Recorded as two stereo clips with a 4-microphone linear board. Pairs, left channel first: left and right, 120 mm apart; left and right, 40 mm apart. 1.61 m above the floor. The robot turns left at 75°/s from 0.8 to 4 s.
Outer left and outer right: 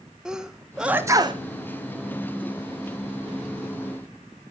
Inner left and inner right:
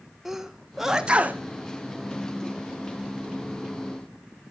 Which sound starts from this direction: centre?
A sneeze, at 0.2 s.